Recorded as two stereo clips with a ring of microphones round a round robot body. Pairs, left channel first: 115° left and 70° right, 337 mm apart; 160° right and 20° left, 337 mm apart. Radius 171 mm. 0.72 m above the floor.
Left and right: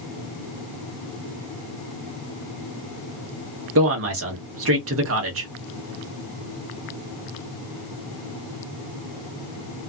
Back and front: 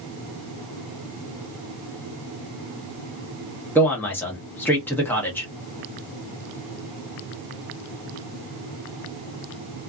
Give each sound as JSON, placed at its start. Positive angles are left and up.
{"t": 3.8, "sound": "a man speaking", "azimuth_deg": -75, "distance_m": 1.1}